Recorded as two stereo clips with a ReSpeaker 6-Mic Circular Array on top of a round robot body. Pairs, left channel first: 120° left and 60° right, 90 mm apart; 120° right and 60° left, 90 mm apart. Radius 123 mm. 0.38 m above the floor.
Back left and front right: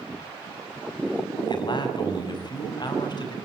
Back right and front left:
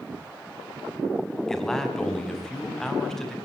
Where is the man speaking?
155° left, 5 m.